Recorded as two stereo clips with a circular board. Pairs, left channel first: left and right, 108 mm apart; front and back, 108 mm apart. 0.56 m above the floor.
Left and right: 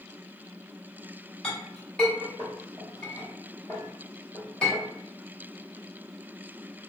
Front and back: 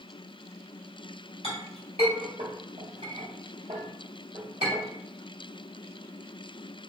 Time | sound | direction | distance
1.4 | a clink | 170° left | 1.6 m